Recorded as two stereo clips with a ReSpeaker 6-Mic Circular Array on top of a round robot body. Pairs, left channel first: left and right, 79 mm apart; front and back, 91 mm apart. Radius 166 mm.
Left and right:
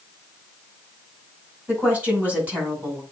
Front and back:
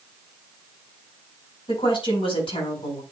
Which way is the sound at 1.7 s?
15° right.